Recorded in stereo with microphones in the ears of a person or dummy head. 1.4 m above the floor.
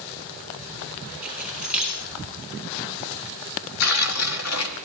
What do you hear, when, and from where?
1.2 s keys jangling: 5° right (ahead or behind), 7.5 m
3.8 s tearing paper: 80° left, 2.0 m